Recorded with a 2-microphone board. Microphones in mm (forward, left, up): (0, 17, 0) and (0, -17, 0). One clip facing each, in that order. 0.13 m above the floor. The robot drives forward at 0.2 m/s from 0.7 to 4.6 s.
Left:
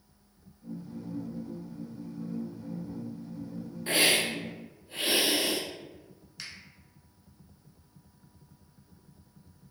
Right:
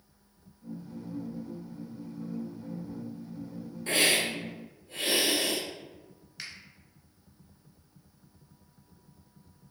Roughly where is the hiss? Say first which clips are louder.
Left 1 dB; centre.